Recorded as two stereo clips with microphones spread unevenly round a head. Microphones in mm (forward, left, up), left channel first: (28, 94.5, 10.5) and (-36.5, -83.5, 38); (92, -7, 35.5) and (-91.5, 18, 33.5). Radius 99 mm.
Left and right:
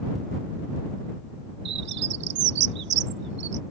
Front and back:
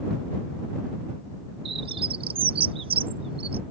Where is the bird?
125° right.